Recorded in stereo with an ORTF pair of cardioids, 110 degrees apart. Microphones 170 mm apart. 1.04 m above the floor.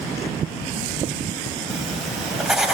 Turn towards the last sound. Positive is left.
turn(degrees=0)